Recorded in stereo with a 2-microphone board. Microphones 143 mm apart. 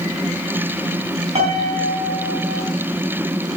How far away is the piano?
About 4 m.